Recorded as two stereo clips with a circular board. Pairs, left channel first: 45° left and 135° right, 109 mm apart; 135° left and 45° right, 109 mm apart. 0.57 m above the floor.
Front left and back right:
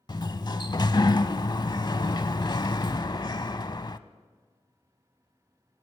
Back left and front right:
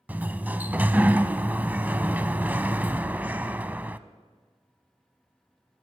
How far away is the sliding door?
About 0.5 m.